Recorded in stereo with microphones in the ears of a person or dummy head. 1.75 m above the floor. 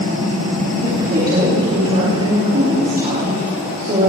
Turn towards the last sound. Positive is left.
turn(degrees=-40)  # may be behind; listen again after turning